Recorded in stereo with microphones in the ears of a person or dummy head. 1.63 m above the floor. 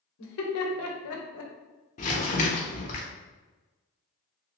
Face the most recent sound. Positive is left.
turn(degrees=35)  # may be behind; listen again after turning